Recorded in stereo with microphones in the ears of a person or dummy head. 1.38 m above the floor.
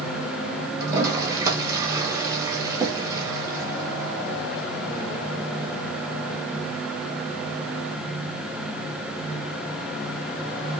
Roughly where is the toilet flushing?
Centre.